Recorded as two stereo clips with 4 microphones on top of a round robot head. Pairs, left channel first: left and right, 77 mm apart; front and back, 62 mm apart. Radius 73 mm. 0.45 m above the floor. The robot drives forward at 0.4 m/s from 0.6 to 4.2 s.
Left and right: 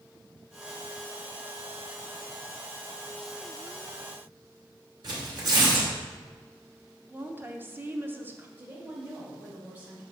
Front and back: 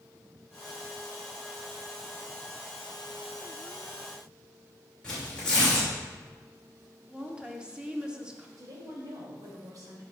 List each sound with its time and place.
5.0 s tearing paper: 75° right, 2.5 m
7.1 s a woman speaking: 120° right, 0.9 m
8.6 s a woman speaking: 160° right, 2 m